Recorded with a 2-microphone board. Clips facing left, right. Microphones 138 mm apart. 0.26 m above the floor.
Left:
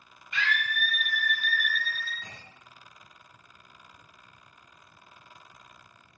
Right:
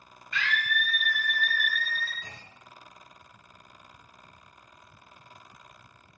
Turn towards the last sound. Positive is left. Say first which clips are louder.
# even
turn(degrees=25)  # may be behind; listen again after turning